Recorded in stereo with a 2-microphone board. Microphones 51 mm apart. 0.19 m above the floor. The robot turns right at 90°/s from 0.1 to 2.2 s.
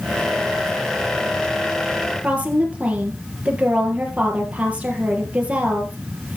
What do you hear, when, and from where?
2.2 s a woman speaking: 25° right (ahead or behind), 3.5 m